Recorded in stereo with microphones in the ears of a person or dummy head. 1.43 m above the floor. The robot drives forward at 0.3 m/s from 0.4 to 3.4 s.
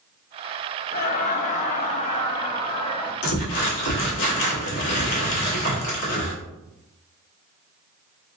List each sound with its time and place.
0.9 s laughter: 45° left (ahead or behind), 0.6 m; by 3.1 s 20° left (ahead or behind), 1.1 m
3.2 s crumpling: 70° left (ahead or behind), 1.5 m; by 6.3 s 65° left (ahead or behind), 1.5 m